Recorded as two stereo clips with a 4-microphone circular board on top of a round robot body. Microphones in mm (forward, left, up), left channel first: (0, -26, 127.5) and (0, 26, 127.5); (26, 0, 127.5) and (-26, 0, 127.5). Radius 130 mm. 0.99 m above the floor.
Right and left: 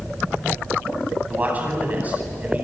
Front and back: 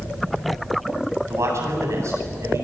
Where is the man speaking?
150° left, 9 m.